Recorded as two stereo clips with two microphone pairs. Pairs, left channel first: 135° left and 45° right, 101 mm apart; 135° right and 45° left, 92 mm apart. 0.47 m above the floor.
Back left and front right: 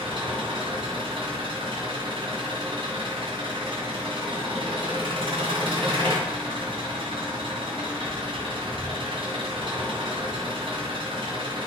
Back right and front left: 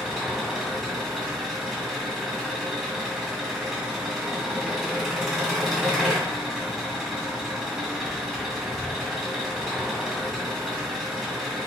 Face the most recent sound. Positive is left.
turn(degrees=-45)